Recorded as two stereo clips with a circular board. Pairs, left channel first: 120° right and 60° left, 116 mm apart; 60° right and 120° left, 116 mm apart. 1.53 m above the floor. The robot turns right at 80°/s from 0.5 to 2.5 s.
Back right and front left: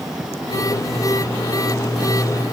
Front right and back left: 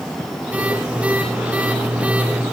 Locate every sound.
Only background noise.